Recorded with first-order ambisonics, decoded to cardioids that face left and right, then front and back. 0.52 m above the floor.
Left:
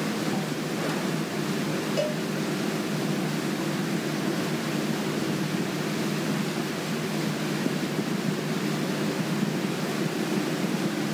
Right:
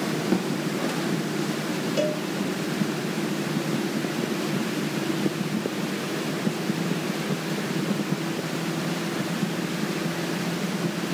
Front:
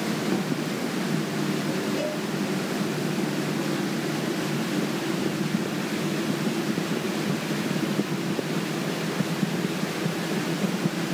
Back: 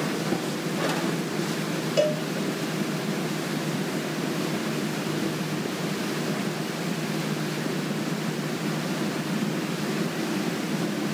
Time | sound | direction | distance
0.3 | a snare drum | 75° right | 1.3 m
2.0 | a cowbell | 175° left | 1.0 m